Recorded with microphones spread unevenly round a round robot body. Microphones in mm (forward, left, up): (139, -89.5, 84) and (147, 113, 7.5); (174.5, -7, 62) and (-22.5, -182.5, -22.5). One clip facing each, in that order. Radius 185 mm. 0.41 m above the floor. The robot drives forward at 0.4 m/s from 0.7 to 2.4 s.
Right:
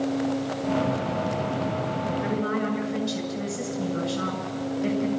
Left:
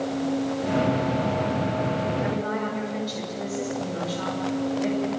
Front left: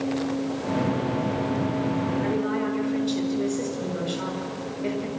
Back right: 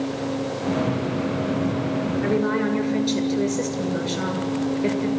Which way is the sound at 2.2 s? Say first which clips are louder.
Right 1 dB, back right 4 dB; 150° right.